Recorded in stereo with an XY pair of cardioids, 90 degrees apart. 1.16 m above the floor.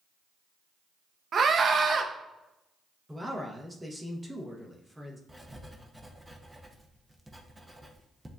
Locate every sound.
1.3 s a scream: 50° right, 0.7 m
3.1 s a man speaking: 10° right, 0.9 m
5.3 s writing: 10° right, 0.6 m